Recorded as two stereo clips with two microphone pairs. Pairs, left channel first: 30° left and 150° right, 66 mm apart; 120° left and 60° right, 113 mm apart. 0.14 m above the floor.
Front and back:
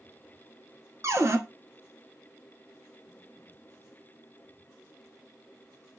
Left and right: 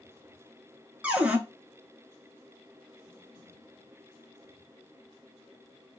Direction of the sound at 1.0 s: 140° right.